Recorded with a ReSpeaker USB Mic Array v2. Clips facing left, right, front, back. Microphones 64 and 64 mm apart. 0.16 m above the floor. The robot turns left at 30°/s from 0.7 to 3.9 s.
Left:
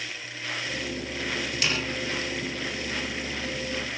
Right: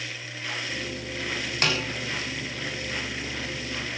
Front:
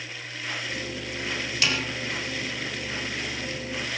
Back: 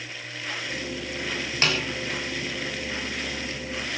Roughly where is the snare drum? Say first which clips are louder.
Right 3 dB, back 2 dB; behind right.